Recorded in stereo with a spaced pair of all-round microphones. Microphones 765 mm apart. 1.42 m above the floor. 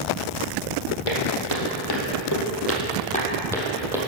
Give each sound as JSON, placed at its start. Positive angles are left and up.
{"t": 1.1, "sound": "footsteps", "side_deg": 45, "distance_m": 2.0}